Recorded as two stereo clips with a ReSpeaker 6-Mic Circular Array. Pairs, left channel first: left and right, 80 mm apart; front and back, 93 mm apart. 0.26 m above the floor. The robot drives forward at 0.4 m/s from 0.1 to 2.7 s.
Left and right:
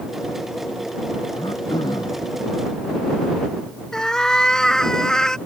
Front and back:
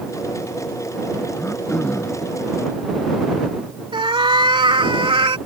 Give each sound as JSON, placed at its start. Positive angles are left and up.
{"t": 1.3, "sound": "throat clearing", "azimuth_deg": 70}
{"t": 3.9, "sound": "a cat meowing", "azimuth_deg": 170}